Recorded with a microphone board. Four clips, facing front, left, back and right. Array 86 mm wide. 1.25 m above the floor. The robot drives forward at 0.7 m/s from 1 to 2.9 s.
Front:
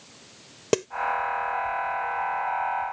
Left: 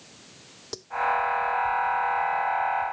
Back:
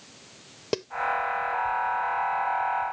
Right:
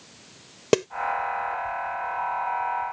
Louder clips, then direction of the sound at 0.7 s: Right 21 dB, front 6 dB; 70° right.